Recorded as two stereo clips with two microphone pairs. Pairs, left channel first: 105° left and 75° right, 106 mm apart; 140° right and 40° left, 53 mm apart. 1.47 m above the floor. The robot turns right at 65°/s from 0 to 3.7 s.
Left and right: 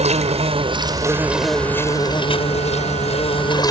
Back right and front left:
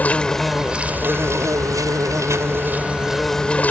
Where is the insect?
80° right; by 3.7 s 160° left.